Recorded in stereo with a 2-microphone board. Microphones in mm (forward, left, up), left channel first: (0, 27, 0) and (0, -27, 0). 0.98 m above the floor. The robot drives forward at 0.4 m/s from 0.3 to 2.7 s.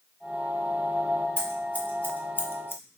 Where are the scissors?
25° left (ahead or behind), 0.9 m; by 2.8 s 50° left (ahead or behind), 0.5 m.